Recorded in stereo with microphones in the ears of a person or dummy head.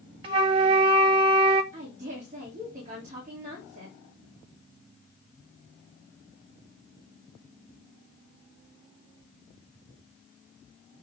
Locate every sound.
0.2 s a flute: 35° right (ahead or behind), 0.7 m
1.7 s a woman speaking: 40° right (ahead or behind), 2.5 m